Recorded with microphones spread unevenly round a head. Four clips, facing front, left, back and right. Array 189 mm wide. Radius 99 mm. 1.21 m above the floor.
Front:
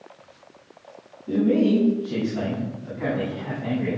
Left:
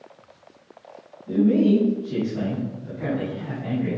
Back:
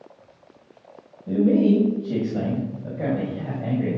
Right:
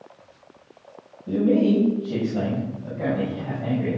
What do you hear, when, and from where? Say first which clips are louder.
1.3 s a man speaking: left 1 dB, back 1 dB; 150° right, 7 m; by 4.0 s 165° right, 6 m